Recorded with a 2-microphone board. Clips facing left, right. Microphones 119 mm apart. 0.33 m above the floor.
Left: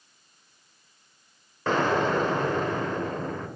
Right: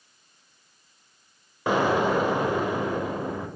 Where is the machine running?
I don't hear a machine running.